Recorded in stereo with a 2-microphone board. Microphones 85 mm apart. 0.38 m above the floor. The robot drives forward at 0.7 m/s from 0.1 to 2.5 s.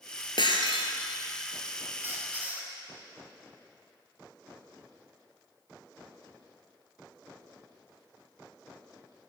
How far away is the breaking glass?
About 1.0 m.